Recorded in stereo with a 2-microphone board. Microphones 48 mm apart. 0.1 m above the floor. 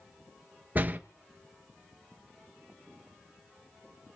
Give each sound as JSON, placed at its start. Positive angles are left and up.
{"t": 0.8, "sound": "a door slam", "side_deg": -35, "distance_m": 1.1}